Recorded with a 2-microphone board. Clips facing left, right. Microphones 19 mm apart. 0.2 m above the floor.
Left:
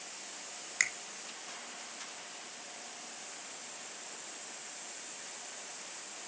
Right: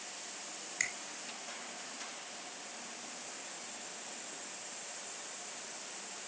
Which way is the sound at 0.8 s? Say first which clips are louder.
Left 5 dB; 35° left (ahead or behind).